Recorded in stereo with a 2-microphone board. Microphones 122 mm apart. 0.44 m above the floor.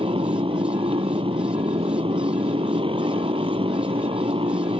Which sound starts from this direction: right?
A motorcycle, at 0.0 s.